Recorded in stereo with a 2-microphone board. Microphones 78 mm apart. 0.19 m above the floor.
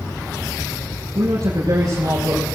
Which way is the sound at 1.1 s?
55° right (ahead or behind).